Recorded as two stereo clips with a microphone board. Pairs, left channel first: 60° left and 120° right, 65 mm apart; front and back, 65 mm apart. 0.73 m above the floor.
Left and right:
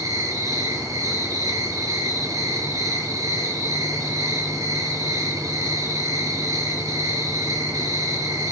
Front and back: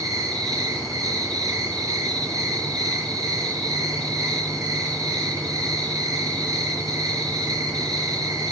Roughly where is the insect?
Behind right.